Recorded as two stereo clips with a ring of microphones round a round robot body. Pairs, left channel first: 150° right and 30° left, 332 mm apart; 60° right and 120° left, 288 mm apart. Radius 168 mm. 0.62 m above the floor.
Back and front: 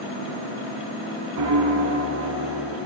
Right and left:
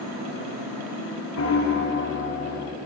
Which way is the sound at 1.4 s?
20° right.